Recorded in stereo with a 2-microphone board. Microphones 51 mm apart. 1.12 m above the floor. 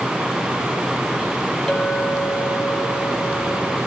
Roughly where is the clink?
Centre.